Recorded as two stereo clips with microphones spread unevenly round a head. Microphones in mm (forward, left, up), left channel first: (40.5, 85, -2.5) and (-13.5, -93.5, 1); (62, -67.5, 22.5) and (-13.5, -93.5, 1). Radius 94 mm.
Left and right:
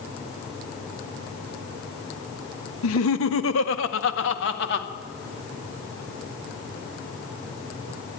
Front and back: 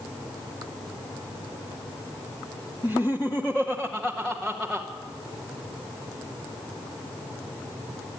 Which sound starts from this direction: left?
Laughter, at 2.8 s.